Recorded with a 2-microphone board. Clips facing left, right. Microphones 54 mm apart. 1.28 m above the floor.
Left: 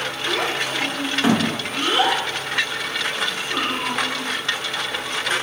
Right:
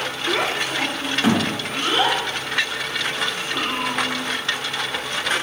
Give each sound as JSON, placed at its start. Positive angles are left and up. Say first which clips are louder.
{"t": 0.3, "sound": "a child speaking", "louder": "right 1 dB", "side_deg": -25, "distance_m": 0.7}